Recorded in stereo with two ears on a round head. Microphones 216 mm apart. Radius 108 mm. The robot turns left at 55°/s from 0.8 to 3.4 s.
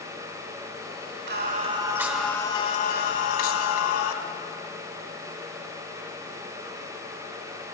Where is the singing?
130° right, 1.5 m; by 4.1 s 115° left, 1.5 m.